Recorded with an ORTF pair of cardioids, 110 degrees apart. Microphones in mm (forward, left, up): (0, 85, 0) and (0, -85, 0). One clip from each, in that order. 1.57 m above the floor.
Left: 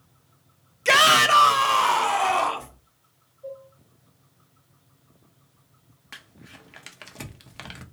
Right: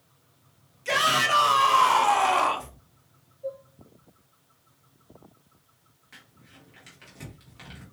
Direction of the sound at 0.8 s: 55° left.